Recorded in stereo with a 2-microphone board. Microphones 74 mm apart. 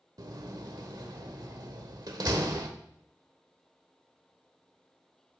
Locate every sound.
0.2 s a door slam: 60° right (ahead or behind), 1.0 m